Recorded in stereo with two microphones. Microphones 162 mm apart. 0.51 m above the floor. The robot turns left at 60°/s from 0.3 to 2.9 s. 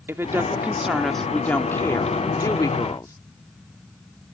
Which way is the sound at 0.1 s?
15° right (ahead or behind).